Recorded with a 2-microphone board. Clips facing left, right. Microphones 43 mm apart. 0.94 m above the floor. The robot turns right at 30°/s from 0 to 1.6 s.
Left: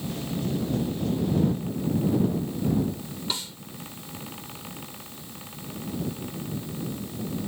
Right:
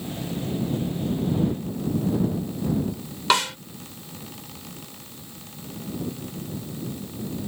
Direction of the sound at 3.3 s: 80° right.